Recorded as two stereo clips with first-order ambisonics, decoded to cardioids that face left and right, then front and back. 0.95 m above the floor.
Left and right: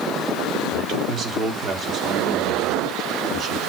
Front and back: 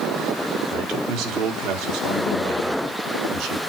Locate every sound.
0.7 s a man speaking: 145° right, 2 m